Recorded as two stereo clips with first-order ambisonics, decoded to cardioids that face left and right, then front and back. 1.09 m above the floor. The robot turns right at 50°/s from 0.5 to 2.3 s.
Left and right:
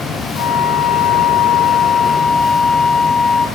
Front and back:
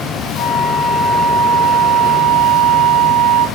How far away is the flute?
About 1.2 m.